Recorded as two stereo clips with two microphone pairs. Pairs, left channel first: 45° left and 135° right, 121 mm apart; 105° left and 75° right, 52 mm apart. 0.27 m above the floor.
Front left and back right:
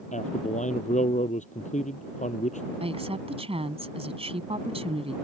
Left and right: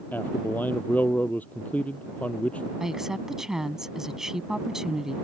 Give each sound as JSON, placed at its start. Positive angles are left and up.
{"t": 0.1, "sound": "a man speaking", "azimuth_deg": 50}
{"t": 2.8, "sound": "a woman speaking", "azimuth_deg": -155}